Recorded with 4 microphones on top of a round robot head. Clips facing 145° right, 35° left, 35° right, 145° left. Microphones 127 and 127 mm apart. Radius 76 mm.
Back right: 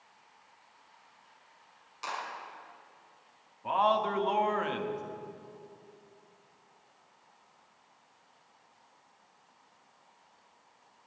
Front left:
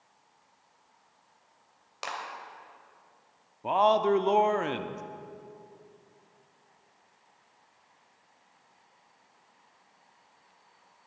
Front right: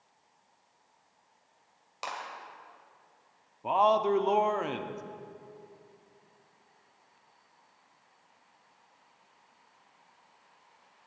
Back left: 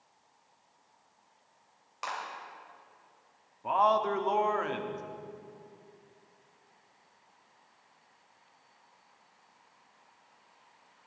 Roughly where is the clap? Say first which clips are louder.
Front left 1 dB, back left 1 dB; ahead left.